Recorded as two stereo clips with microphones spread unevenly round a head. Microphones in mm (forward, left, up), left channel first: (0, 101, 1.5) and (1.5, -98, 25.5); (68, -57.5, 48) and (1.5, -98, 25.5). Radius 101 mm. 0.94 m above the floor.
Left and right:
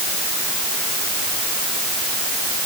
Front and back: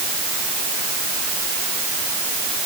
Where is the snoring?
I don't hear snoring.